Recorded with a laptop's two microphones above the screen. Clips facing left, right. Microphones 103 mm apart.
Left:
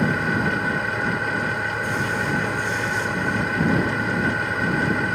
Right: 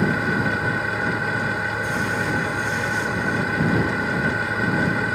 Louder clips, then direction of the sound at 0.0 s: Even; centre (ahead or behind).